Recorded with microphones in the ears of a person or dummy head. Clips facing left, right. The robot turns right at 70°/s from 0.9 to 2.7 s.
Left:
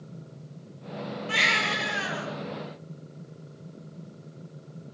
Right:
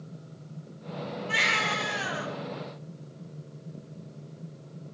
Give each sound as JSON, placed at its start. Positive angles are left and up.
{"t": 1.3, "sound": "a baby crying", "azimuth_deg": 115, "distance_m": 1.3}